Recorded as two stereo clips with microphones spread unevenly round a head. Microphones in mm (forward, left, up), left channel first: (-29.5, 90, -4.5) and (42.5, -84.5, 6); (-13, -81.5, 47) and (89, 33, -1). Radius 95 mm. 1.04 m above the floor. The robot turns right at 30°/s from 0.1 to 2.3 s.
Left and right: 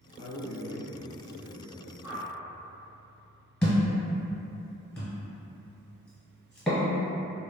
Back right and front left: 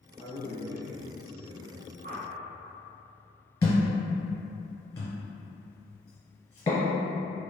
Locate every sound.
0.2 s a man speaking: 65° right, 1.2 m; by 2.1 s 5° right, 1.2 m
2.0 s a whoosh: 5° left, 0.6 m; by 2.3 s 10° left, 0.6 m
3.6 s a thud: 160° right, 1.1 m